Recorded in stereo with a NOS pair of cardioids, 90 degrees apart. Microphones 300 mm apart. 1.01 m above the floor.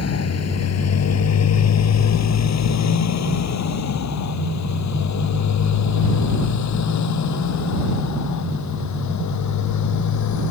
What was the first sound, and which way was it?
A motorcycle, 55° left.